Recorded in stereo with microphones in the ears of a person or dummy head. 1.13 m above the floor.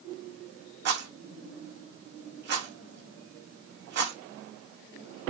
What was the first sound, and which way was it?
A rattle, 60° right (ahead or behind).